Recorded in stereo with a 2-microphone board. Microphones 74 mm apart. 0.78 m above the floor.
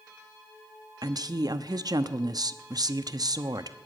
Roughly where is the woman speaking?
Right.